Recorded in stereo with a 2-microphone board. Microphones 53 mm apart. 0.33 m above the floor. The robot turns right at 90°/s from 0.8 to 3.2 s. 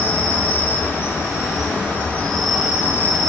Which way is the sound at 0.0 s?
30° left.